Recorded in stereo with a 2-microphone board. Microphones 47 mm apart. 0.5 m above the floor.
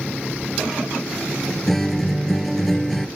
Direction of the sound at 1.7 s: 5° left (ahead or behind).